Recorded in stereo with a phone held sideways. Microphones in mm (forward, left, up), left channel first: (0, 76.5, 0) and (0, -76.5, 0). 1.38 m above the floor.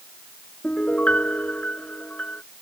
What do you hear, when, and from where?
0.6 s a piano: 10° left (ahead or behind)